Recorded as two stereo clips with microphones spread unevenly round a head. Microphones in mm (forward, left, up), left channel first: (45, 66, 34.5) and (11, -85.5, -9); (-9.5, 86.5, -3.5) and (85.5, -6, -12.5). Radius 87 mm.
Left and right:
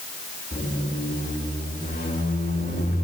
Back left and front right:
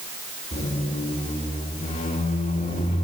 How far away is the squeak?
About 2.5 m.